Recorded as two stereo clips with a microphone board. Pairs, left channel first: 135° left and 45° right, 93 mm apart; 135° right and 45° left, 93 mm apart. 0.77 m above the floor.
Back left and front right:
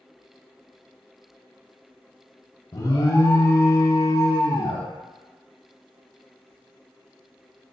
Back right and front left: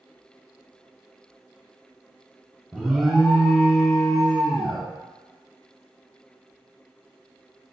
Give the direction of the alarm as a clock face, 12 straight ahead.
8 o'clock.